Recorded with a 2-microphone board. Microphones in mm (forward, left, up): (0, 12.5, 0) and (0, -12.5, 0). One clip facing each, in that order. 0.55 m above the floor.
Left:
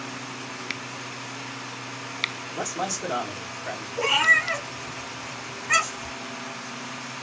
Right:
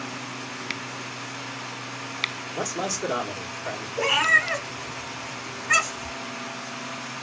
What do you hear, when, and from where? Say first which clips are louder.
2.5 s a man speaking: right 1 dB; 15° right (ahead or behind), 1.3 m
4.0 s a cat meowing: even; centre (ahead or behind), 1.4 m